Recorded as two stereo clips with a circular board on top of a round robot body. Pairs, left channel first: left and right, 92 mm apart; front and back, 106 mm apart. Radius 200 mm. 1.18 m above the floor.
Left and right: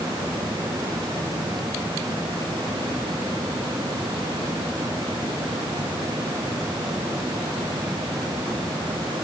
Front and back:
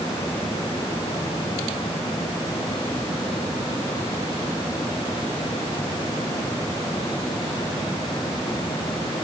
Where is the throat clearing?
No throat clearing in this recording.